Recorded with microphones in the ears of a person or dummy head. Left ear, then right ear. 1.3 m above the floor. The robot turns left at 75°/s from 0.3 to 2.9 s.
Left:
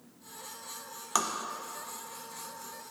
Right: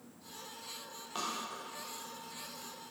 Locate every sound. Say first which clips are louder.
1.1 s tapping: left 8 dB; 55° left (ahead or behind), 0.8 m; by 1.3 s 70° left (ahead or behind), 0.8 m